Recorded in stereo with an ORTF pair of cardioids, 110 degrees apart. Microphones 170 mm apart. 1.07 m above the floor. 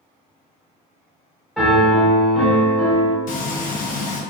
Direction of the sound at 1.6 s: Straight ahead.